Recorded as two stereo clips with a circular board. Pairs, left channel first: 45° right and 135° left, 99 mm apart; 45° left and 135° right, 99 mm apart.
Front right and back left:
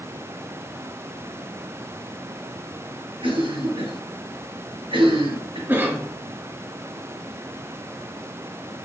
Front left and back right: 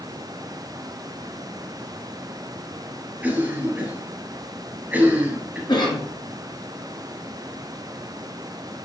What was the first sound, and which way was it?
A cough, 155° left.